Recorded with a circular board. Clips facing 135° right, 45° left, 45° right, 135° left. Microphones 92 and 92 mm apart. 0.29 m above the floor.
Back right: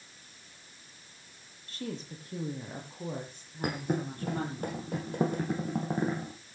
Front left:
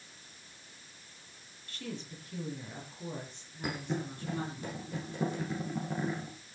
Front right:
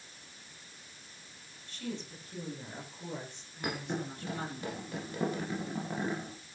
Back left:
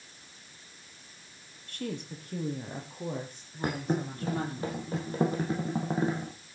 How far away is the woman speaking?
About 6.5 m.